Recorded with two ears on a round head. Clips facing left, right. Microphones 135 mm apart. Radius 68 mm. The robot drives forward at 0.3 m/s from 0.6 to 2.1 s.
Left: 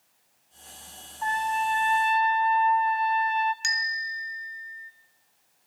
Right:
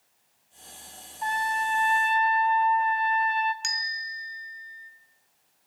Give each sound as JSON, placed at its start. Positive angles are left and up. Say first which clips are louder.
{"t": 1.2, "sound": "a trumpet", "louder": "left 2 dB", "side_deg": -15, "distance_m": 2.5}
{"t": 3.6, "sound": "a bell", "louder": "left 3 dB", "side_deg": 0, "distance_m": 2.5}